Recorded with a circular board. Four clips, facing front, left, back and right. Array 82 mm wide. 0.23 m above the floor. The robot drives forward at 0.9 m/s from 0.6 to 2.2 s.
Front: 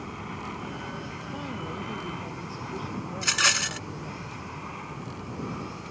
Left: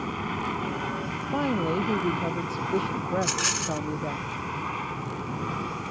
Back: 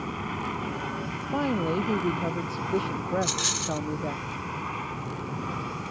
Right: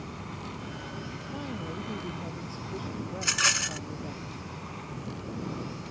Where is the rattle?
20° right.